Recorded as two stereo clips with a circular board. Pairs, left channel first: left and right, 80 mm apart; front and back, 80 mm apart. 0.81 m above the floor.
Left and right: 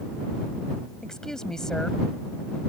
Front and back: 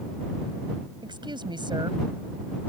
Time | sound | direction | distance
1.0 | a woman speaking | 175° left | ?